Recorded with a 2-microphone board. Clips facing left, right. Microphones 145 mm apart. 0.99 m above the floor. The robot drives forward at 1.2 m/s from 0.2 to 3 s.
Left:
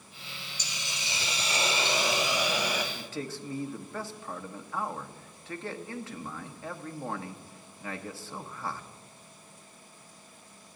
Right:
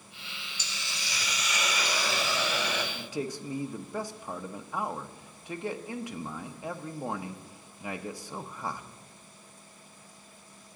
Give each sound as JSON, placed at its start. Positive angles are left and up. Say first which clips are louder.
{"t": 0.6, "sound": "a hiss", "louder": "left 1 dB", "side_deg": 15, "distance_m": 1.3}
{"t": 3.0, "sound": "a man speaking", "louder": "right 3 dB", "side_deg": -15, "distance_m": 0.8}